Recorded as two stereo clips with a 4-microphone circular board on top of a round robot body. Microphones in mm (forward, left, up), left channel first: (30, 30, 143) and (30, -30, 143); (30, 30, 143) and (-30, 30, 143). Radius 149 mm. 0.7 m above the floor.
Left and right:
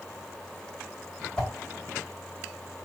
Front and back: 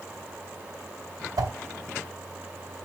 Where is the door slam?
No door slam in this recording.